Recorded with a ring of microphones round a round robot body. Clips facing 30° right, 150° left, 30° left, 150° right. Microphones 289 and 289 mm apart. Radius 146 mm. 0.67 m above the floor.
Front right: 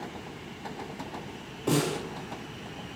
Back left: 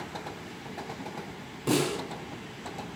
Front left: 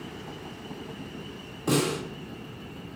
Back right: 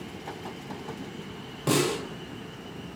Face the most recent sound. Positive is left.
turn(degrees=-145)